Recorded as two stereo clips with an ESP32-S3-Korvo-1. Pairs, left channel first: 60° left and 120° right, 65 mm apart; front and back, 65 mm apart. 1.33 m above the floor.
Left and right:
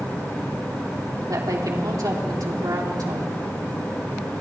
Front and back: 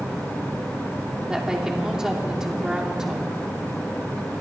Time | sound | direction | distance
1.3 | a woman speaking | 100° right | 3 m